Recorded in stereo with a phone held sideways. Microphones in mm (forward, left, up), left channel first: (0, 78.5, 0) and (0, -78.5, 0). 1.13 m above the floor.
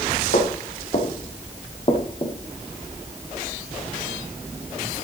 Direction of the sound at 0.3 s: 60° left (ahead or behind).